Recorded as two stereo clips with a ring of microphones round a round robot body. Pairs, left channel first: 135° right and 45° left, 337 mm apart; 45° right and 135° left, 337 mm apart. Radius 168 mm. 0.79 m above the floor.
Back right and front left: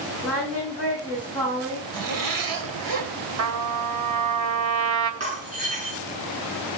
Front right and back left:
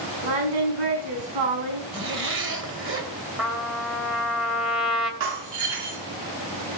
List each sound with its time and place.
0.2 s singing: 140° left, 7.5 m
1.9 s a zipper: 80° left, 3 m
3.4 s a trumpet: 45° left, 2.5 m
5.2 s breaking glass: 115° left, 7 m